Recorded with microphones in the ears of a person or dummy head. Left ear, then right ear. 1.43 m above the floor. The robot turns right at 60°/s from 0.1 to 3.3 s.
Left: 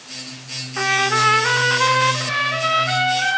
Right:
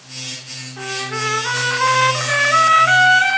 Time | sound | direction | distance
0.8 | a trumpet | 120° left | 1.0 m